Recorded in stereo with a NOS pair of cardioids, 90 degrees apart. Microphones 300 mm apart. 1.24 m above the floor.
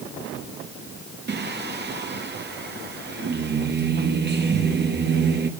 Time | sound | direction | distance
1.3 | singing | 35° right | 1.8 m